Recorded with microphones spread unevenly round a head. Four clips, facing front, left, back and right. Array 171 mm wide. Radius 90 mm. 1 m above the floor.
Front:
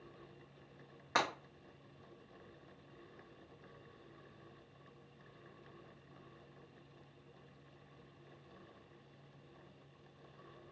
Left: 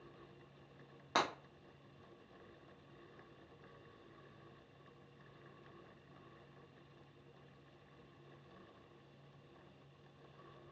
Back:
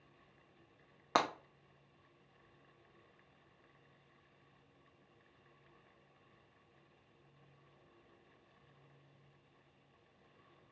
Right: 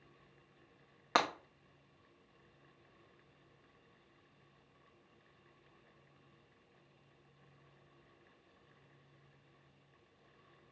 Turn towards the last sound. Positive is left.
turn(degrees=-155)